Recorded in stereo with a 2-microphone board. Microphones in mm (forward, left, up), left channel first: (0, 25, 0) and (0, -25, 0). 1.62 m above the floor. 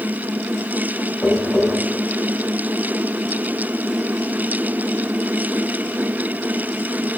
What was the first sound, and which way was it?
Tapping, 55° left (ahead or behind).